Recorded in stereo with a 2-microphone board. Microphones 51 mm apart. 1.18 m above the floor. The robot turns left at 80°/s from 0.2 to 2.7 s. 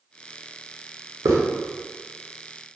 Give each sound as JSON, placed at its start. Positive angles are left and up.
{"t": 1.2, "sound": "a hiss", "side_deg": -80, "distance_m": 0.6}